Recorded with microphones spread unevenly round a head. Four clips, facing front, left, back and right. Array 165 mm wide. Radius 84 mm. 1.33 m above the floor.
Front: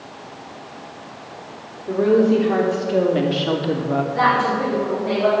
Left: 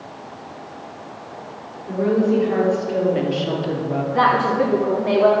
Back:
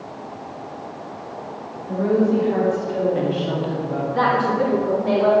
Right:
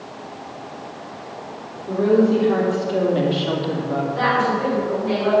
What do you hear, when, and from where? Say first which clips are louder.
1.9 s a woman speaking: right 2 dB, front 3 dB; 15° right, 3.5 m; by 4.0 s straight ahead, 1.4 m
4.1 s a woman speaking: left 4 dB, back 1 dB; 85° left, 3.5 m